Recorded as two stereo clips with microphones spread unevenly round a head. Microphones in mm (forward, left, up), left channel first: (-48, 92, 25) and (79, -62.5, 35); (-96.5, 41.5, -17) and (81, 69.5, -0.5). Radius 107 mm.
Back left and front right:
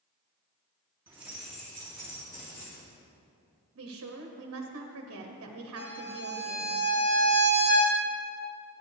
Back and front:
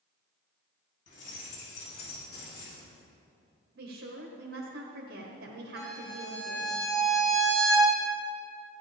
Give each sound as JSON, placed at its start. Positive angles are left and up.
{"t": 1.1, "sound": "keys jangling", "azimuth_deg": -130, "distance_m": 3.0}
{"t": 3.8, "sound": "a woman speaking", "azimuth_deg": -30, "distance_m": 1.1}
{"t": 5.8, "sound": "a violin", "azimuth_deg": 115, "distance_m": 3.5}